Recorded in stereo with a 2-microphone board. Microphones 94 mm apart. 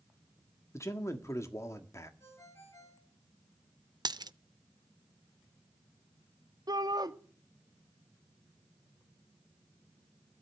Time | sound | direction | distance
0.7 | a man speaking | 30° left (ahead or behind) | 1.4 m
2.2 | a ringtone | 30° left (ahead or behind) | 7.5 m
4.0 | a dropped coin | 50° right (ahead or behind) | 0.5 m
6.7 | a shout | 45° right (ahead or behind) | 1.6 m